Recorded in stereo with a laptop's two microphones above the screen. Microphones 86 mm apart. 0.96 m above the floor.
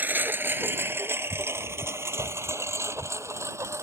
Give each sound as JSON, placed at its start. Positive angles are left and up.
{"t": 0.0, "sound": "a lawn mower", "side_deg": -20}